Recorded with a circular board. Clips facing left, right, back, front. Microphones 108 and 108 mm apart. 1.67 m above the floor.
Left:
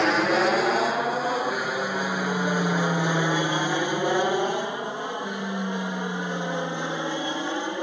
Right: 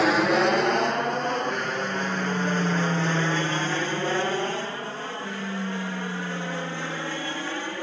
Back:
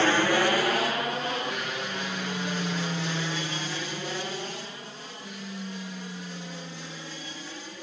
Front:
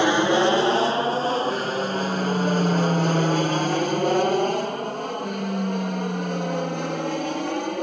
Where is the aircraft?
Straight ahead; by 7.8 s 20° left.